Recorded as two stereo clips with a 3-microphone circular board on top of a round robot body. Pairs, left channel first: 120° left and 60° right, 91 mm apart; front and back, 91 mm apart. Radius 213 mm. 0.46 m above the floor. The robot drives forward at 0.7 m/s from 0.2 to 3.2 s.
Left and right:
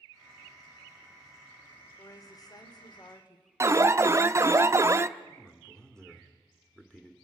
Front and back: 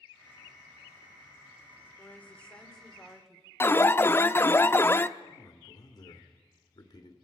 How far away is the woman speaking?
About 2.5 m.